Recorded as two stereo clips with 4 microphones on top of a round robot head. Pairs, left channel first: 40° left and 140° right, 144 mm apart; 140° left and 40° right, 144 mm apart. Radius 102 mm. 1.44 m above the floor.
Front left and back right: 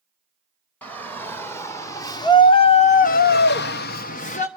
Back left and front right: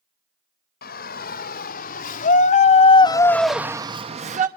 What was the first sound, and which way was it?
A shout, 120° left.